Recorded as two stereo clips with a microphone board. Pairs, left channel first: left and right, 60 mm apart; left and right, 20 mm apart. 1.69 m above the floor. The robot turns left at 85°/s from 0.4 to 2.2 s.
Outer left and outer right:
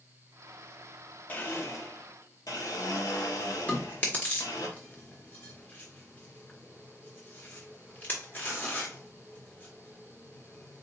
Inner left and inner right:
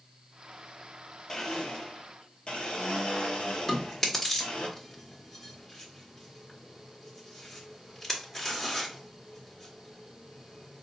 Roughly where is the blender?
Behind left.